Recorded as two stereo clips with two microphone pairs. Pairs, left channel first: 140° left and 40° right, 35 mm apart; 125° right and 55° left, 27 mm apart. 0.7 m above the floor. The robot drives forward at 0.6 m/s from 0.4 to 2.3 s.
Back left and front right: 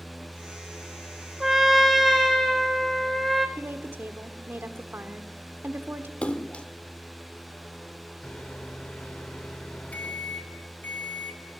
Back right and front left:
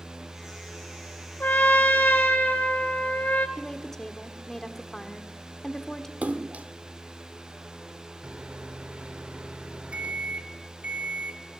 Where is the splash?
85° left, 1.1 m.